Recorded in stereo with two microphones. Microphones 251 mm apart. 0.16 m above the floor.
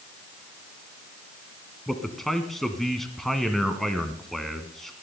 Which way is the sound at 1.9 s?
Centre (ahead or behind).